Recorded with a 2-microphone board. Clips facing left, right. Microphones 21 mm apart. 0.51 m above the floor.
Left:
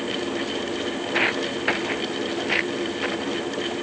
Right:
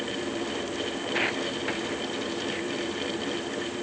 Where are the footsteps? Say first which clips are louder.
Left 5 dB; 10° left (ahead or behind); by 3.7 s 55° left (ahead or behind).